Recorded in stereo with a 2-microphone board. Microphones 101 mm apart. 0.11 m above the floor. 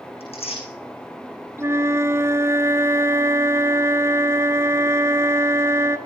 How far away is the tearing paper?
About 8 m.